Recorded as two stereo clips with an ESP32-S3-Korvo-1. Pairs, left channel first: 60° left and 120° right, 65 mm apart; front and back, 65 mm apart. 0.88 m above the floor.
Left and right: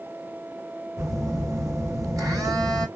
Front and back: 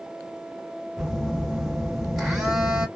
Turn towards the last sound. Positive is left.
turn(degrees=-90)